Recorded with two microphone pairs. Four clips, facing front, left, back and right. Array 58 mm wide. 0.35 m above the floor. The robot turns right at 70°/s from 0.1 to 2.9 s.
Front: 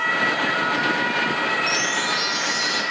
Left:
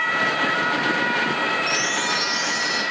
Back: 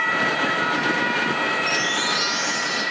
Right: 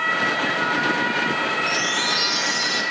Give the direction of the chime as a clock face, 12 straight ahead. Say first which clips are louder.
Even, even; 5 o'clock.